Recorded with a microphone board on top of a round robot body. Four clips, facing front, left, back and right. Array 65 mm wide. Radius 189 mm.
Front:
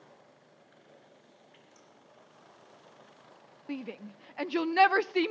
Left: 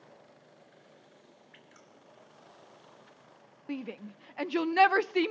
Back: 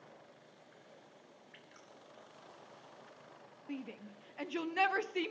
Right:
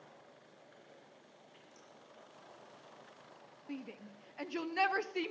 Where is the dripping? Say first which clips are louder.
Left 3 dB, even; 130° left, 3 m.